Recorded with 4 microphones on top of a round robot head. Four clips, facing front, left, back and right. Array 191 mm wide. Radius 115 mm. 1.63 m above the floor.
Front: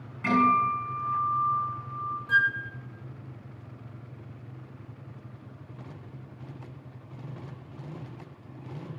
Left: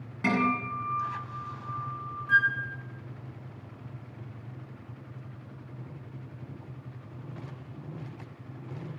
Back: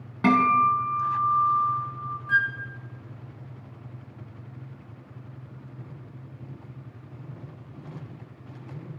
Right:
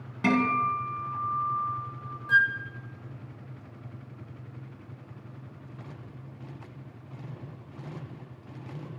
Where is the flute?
35° right, 2.5 m.